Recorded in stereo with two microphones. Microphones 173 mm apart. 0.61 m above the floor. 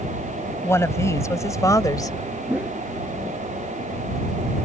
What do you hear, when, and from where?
0.6 s a woman speaking: 15° left (ahead or behind); by 2.2 s 20° left (ahead or behind)
2.5 s a whoosh: 10° right (ahead or behind)